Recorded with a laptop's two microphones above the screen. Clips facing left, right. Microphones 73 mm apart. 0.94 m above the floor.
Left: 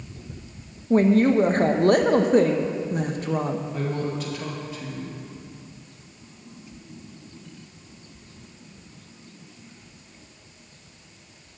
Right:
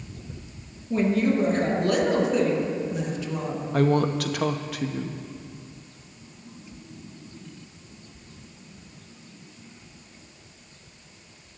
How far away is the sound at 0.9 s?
About 0.8 m.